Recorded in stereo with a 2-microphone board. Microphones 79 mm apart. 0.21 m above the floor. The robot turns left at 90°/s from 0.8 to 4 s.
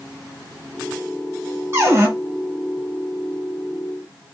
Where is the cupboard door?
75° right, 1.5 m; by 2.1 s 105° right, 1.5 m.